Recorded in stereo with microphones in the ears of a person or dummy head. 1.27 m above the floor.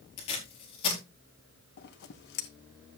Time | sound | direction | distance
0.2 | tape being pulled | 30° left (ahead or behind) | 4.5 m
1.8 | scissors | 50° left (ahead or behind) | 1.0 m